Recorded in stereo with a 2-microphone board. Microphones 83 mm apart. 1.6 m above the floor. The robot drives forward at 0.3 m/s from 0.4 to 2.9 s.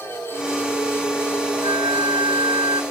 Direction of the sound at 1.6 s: 80° right.